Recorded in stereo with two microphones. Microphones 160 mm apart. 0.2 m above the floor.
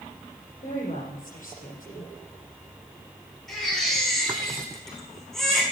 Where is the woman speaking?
55° left (ahead or behind), 6.5 m.